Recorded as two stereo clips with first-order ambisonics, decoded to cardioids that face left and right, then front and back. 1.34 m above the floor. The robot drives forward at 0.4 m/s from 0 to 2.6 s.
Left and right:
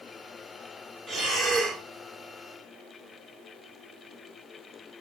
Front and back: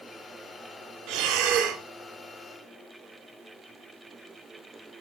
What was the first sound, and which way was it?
Breathing, 175° left.